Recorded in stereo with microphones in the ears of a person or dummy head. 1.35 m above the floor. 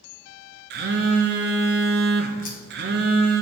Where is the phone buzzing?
50° right (ahead or behind), 0.6 m.